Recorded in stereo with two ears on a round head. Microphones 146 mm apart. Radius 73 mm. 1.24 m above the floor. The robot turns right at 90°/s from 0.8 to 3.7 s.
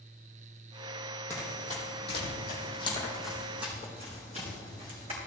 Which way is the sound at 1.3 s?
15° left (ahead or behind).